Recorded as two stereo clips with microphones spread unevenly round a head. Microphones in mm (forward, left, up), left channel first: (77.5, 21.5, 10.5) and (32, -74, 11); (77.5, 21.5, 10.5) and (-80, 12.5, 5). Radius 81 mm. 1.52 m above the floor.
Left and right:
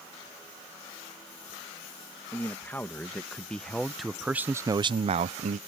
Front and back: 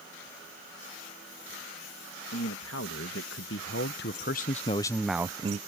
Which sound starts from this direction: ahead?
A man speaking, at 2.3 s.